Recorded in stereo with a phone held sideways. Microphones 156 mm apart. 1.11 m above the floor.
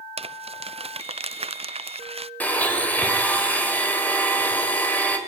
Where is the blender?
10° left (ahead or behind), 4 m.